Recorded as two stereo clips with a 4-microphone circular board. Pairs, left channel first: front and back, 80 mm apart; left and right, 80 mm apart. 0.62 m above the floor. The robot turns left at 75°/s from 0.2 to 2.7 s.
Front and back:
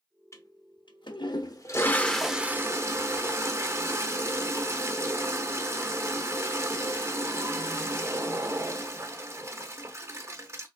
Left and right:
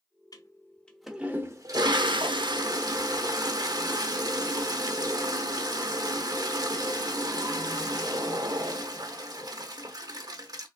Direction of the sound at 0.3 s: 55° left.